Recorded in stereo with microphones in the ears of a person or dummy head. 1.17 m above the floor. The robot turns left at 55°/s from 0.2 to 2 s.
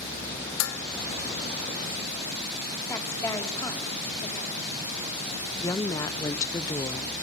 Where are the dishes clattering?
75° left (ahead or behind), 1.1 m; by 0.8 s 80° left, 1.1 m.